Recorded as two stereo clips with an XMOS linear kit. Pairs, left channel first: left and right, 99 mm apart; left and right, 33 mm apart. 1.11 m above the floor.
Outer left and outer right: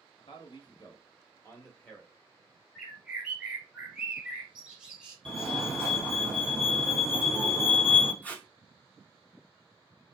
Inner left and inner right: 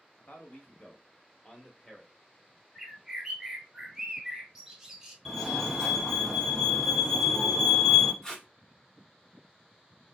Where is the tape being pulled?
15° left (ahead or behind), 0.7 m.